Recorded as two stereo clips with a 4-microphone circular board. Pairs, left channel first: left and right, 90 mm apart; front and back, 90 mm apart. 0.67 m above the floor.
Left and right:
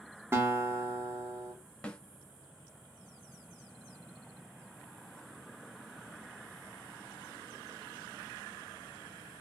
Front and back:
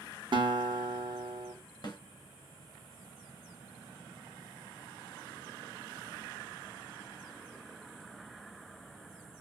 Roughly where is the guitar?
Behind right.